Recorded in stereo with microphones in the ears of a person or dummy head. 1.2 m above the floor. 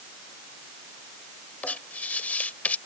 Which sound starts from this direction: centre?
Writing, at 1.6 s.